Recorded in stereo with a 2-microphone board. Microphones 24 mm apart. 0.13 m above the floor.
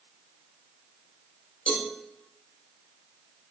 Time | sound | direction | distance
1.7 | a cowbell | 75° left (ahead or behind) | 0.9 m